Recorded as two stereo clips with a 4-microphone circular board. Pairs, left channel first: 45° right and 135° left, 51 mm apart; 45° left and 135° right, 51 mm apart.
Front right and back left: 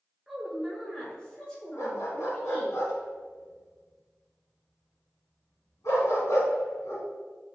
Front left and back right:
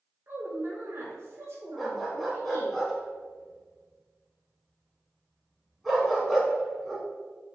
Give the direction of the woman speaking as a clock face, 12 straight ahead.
5 o'clock.